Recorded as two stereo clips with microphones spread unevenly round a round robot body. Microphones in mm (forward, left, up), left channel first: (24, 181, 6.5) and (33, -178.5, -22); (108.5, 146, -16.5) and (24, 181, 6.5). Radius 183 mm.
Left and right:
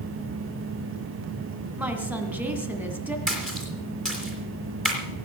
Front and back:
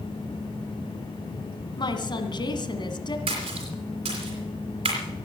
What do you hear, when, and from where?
1.8 s a woman speaking: 5° right, 2 m
3.3 s a splash: straight behind, 3 m